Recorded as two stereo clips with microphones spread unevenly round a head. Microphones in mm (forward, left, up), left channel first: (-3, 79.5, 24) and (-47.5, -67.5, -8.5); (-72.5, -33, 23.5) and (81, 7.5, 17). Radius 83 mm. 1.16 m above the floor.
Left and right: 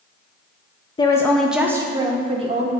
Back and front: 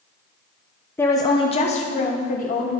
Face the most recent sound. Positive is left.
turn(degrees=-135)